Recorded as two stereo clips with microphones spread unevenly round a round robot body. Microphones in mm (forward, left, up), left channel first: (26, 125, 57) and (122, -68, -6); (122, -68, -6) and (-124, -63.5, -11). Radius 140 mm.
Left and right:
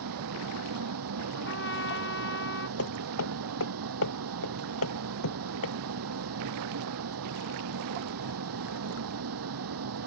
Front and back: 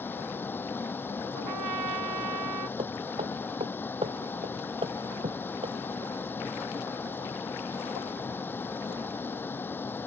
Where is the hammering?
105° left.